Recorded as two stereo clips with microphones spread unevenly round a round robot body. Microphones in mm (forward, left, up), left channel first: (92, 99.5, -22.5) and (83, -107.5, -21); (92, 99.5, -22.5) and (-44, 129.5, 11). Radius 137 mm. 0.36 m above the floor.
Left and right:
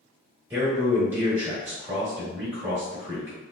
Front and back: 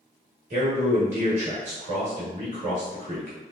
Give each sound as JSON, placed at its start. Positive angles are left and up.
{"t": 0.5, "sound": "a man speaking", "azimuth_deg": -170, "distance_m": 1.2}